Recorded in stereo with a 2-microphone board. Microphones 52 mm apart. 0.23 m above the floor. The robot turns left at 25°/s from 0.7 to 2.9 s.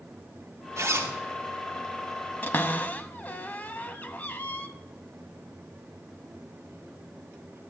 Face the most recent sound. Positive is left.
turn(degrees=30)  # may be behind; listen again after turning